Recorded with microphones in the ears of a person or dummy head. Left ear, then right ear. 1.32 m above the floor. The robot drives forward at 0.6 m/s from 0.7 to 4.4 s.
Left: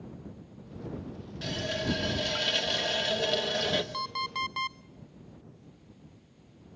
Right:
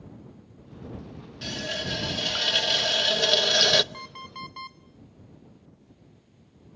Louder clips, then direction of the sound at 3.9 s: Left 7 dB; 25° left (ahead or behind).